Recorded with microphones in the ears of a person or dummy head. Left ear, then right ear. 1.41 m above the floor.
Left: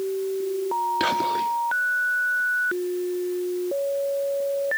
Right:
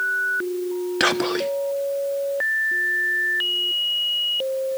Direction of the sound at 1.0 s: 45° right (ahead or behind).